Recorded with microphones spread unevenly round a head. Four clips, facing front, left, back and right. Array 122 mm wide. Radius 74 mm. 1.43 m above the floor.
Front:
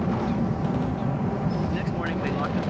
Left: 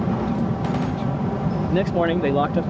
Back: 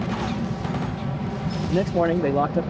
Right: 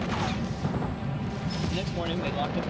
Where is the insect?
65° left.